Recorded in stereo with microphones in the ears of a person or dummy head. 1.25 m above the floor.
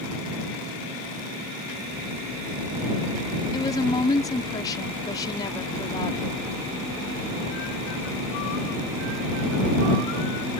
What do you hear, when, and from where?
3.5 s a woman speaking: 25° left (ahead or behind)